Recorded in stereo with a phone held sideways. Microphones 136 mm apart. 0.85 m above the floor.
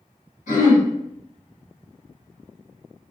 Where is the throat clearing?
80° left, 1.6 m.